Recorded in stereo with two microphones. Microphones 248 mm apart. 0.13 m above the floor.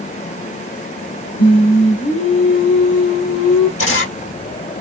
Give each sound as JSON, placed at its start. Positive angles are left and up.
{"t": 1.4, "sound": "singing", "side_deg": 45, "distance_m": 1.3}
{"t": 3.8, "sound": "a camera shutter", "side_deg": 60, "distance_m": 1.5}